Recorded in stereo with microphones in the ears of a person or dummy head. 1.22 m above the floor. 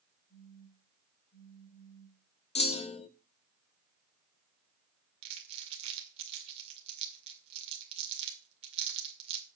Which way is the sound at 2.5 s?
30° left (ahead or behind).